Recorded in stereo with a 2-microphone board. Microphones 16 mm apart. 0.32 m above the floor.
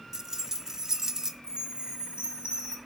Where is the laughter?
I don't hear laughter.